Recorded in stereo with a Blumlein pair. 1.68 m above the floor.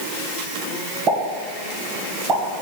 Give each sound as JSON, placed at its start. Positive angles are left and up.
{"t": 1.1, "sound": "a pop", "azimuth_deg": -30, "distance_m": 1.9}